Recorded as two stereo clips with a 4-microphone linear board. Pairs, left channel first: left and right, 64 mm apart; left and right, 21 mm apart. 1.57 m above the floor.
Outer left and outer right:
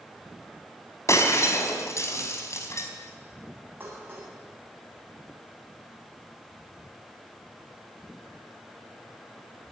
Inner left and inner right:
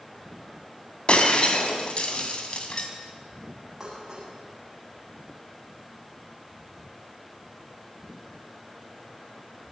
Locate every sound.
1.1 s breaking glass: 50° left (ahead or behind), 4 m
3.8 s dishes clattering: 35° right (ahead or behind), 7.5 m